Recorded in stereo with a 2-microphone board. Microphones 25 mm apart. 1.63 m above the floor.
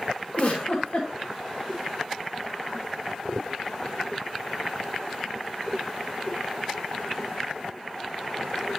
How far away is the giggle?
About 2.5 m.